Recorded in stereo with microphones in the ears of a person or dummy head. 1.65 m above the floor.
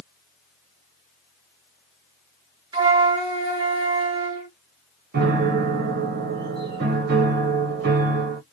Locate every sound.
2.7 s a flute: 25° right (ahead or behind), 1.5 m
5.1 s a piano: 55° right (ahead or behind), 0.9 m